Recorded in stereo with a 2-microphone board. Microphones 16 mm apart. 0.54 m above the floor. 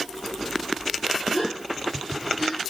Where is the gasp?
30° left (ahead or behind), 8 m.